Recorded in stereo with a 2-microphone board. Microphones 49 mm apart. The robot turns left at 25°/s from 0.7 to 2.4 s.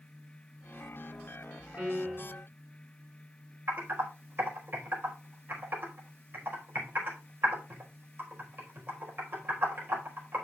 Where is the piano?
40° right (ahead or behind), 4 m; by 2.4 s 25° right (ahead or behind), 4 m.